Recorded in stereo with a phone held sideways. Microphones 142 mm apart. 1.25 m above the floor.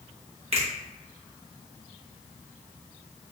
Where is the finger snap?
45° right (ahead or behind), 0.8 m.